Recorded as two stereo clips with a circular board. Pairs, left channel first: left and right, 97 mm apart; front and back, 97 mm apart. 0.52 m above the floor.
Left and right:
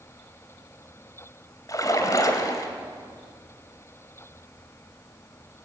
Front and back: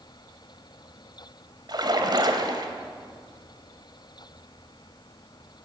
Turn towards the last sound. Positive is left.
turn(degrees=140)